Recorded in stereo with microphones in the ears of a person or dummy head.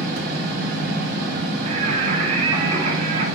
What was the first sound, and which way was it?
A fan, 50° right (ahead or behind).